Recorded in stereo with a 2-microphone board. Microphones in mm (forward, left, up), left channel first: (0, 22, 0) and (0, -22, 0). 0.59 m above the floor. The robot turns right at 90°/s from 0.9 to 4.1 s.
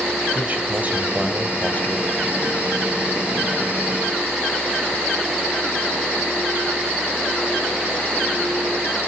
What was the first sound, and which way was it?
A man speaking, 35° right.